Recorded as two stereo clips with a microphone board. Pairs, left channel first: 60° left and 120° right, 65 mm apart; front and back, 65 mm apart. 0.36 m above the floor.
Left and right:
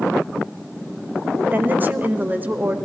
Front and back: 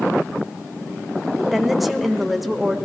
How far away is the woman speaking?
About 0.9 m.